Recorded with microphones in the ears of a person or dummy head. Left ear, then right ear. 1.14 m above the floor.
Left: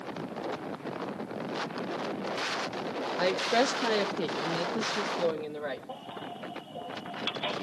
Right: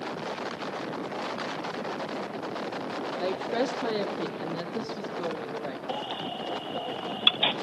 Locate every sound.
3.2 s a woman speaking: 30° left (ahead or behind), 0.6 m; by 5.8 s 20° left (ahead or behind), 2 m
5.9 s a baby crying: 75° right (ahead or behind), 1.2 m